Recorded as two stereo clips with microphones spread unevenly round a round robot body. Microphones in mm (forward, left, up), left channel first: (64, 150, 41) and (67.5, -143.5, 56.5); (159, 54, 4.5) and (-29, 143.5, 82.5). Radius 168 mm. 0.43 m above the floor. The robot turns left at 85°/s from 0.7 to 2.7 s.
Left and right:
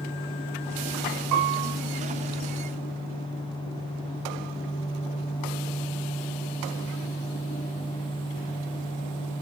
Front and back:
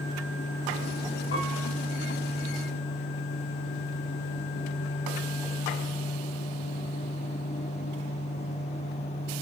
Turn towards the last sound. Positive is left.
turn(degrees=175)